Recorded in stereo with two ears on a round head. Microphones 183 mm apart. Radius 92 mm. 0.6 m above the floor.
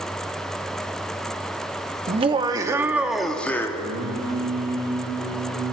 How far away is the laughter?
About 1.2 m.